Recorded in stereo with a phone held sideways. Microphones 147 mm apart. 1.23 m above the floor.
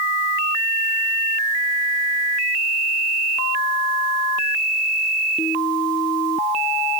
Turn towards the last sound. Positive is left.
No sound to turn to.